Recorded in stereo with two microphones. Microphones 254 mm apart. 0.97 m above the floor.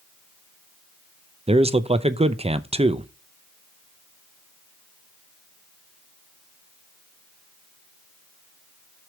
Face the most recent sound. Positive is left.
turn(degrees=-25)  # may be behind; listen again after turning